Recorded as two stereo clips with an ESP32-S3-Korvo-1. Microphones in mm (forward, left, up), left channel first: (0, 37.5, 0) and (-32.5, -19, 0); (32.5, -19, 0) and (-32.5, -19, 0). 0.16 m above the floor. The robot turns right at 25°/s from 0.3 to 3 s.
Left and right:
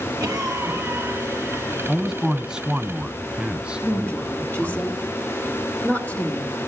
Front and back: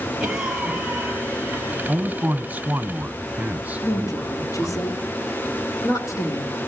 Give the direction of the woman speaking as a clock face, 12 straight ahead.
12 o'clock.